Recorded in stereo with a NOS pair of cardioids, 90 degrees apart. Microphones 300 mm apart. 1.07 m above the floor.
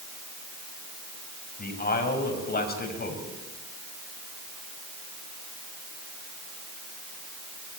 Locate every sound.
1.6 s a man speaking: 30° left, 6.5 m